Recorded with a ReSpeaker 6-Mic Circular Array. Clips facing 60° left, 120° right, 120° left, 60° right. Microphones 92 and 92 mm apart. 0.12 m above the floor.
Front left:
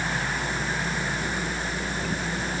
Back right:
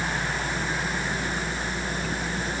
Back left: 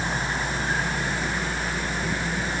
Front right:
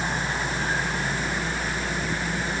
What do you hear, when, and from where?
Only background noise.